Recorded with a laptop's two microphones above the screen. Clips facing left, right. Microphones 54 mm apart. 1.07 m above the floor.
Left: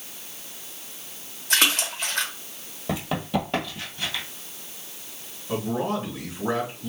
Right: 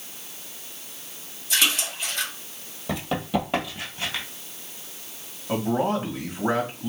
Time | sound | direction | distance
1.5 | a splash | 60° left (ahead or behind) | 1.2 m
2.9 | running footsteps | 10° left (ahead or behind) | 1.9 m
5.5 | a man speaking | 45° right (ahead or behind) | 1.6 m